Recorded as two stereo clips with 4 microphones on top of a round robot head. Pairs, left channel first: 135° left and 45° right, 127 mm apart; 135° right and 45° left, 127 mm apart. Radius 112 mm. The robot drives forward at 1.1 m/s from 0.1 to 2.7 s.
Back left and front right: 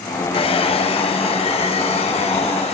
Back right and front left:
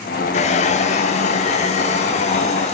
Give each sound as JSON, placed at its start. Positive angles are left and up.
{"t": 0.3, "sound": "a hair dryer", "azimuth_deg": -175, "distance_m": 2.5}